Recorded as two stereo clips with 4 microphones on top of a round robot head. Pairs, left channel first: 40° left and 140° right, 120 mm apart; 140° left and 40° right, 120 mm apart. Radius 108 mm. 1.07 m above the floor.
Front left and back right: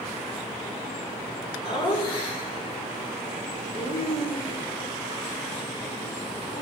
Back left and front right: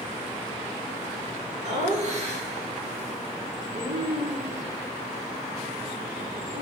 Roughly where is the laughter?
Ahead.